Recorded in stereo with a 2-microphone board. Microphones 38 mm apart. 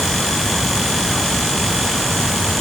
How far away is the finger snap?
I don't hear a finger snap.